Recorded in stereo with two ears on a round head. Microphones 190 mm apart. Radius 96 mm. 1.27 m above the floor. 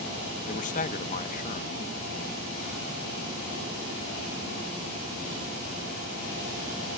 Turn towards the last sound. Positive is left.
turn(degrees=40)  # may be behind; listen again after turning